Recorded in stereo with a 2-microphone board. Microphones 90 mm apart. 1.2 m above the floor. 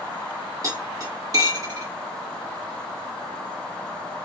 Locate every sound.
0.6 s cutlery clinking: 40° right (ahead or behind), 1.9 m